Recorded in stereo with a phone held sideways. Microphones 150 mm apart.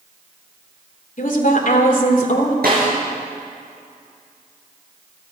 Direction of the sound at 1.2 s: 65° left (ahead or behind).